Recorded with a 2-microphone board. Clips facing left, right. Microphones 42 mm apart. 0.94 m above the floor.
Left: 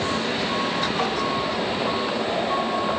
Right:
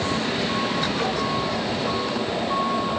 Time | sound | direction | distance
1.0 | tapping | 45° left (ahead or behind) | 3.5 m